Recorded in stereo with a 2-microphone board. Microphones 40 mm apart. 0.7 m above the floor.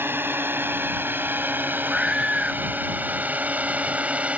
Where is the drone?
70° right (ahead or behind); by 4.4 s 35° right (ahead or behind).